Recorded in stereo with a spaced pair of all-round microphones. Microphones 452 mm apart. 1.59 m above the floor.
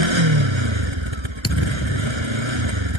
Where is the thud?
30° left (ahead or behind).